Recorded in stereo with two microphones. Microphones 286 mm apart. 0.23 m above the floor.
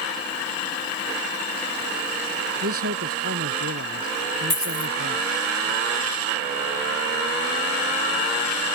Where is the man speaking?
50° right (ahead or behind).